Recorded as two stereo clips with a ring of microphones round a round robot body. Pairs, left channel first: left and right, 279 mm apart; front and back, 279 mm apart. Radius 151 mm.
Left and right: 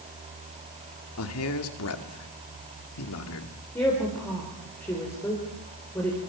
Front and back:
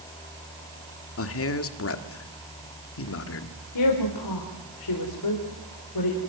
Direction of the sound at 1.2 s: 40° left.